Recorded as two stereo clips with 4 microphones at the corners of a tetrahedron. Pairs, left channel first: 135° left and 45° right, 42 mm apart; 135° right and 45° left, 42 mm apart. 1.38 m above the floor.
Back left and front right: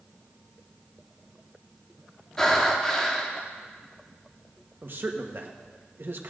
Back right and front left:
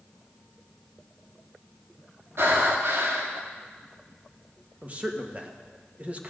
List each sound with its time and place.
2.4 s breathing: 55° left, 1.6 m
4.8 s a man speaking: 10° right, 1.4 m